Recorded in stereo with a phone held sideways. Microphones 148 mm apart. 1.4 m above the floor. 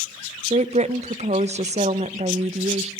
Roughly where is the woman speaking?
Right.